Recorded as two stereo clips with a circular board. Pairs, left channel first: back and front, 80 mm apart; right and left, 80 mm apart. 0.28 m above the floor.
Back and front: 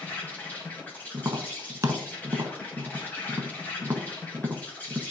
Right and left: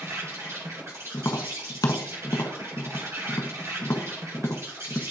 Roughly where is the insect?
Behind left.